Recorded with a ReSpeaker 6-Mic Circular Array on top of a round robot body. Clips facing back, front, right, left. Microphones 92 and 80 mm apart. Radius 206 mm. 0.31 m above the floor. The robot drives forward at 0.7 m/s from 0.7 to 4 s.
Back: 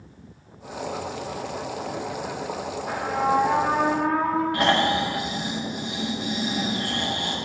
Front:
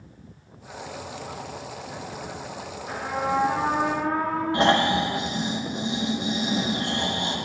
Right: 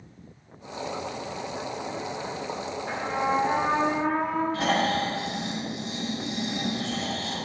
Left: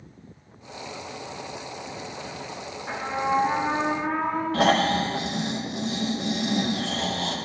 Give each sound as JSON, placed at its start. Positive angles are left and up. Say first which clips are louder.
{"t": 2.9, "sound": "a trumpet", "louder": "back 3 dB, left 1 dB", "azimuth_deg": 175, "distance_m": 2.0}
{"t": 4.5, "sound": "snoring", "louder": "front 4 dB, left 7 dB", "azimuth_deg": 65, "distance_m": 0.8}